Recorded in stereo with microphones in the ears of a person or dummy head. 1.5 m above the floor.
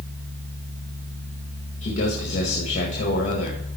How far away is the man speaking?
About 1.7 m.